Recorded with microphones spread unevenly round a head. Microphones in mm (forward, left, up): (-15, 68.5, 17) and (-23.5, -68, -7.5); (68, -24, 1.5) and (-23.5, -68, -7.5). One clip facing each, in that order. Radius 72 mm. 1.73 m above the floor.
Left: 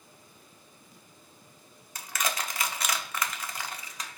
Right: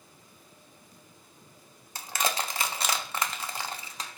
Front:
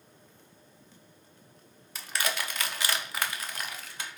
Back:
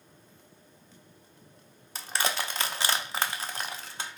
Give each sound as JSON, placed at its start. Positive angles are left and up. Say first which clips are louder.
{"t": 1.9, "sound": "crushing", "louder": "right 3 dB, back 2 dB", "azimuth_deg": -140, "distance_m": 0.5}